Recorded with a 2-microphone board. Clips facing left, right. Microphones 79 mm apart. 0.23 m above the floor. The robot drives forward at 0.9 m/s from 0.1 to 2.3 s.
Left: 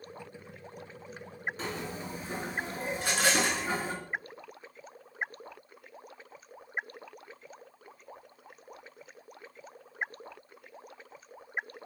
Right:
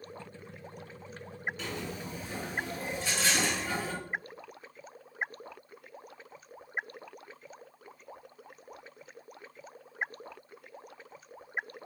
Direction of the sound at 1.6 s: 35° left (ahead or behind).